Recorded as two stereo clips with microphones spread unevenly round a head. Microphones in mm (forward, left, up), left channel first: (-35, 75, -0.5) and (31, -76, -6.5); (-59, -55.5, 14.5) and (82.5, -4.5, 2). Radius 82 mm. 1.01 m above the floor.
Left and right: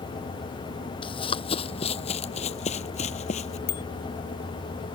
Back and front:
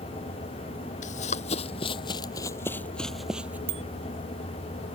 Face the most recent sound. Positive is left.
turn(degrees=80)